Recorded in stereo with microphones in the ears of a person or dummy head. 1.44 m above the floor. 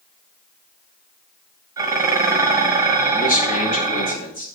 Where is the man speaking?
45° left (ahead or behind), 2 m.